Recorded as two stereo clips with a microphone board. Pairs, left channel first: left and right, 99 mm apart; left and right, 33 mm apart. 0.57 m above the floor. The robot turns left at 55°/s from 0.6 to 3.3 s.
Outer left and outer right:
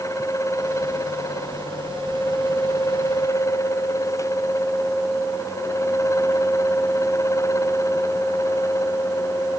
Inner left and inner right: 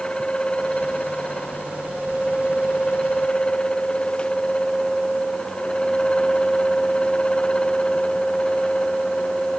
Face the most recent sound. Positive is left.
No sound to turn to.